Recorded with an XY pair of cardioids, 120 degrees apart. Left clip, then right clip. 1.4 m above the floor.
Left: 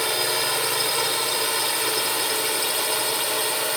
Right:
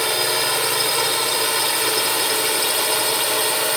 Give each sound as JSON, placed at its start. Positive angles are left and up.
{"t": 0.0, "sound": "a drone", "azimuth_deg": -20}